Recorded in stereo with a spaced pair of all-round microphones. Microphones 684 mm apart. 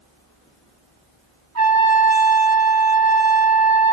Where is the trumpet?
25° right (ahead or behind), 0.9 m.